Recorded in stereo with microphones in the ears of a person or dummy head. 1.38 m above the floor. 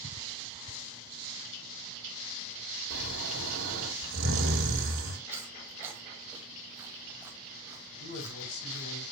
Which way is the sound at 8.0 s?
60° left (ahead or behind).